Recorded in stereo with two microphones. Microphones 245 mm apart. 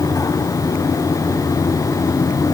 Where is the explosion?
I don't hear an explosion.